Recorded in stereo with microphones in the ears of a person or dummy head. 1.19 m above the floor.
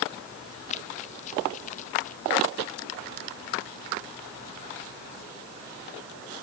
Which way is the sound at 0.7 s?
45° left (ahead or behind).